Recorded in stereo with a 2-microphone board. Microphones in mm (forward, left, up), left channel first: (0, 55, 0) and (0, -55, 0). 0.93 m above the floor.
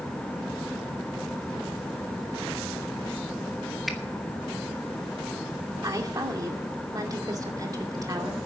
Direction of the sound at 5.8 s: 35° right (ahead or behind).